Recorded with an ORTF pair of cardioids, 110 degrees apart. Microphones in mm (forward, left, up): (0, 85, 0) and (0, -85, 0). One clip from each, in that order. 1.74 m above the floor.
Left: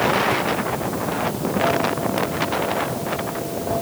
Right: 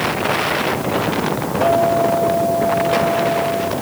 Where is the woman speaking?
I don't hear a woman speaking.